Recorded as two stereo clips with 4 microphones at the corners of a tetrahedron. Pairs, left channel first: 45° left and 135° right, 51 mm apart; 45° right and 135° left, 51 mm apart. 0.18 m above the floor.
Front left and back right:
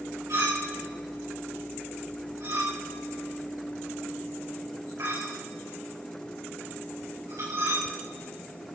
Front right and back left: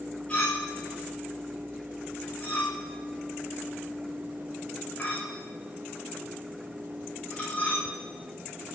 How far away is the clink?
About 9.5 m.